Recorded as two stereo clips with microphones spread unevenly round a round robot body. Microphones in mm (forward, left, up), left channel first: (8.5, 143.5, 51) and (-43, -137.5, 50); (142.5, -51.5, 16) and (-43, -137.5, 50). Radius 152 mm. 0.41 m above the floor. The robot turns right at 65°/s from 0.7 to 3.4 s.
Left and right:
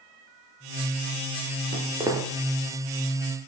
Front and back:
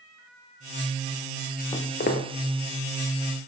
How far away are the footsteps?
About 2 m.